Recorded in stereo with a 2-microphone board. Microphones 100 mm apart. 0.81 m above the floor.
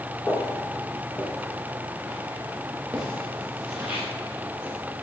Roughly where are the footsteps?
Centre.